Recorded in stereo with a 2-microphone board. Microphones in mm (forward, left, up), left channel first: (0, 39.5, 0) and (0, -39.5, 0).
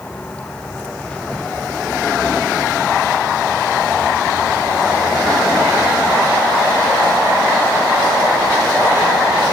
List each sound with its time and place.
0.0 s a vehicle: 15° left (ahead or behind); by 9.5 s 10° right (ahead or behind)